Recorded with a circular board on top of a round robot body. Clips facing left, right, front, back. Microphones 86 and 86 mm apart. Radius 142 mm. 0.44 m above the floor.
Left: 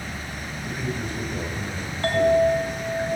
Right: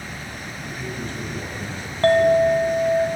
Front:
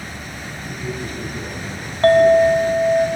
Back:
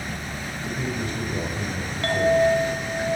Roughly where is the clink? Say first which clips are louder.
Right 4 dB, front 8 dB; ahead right.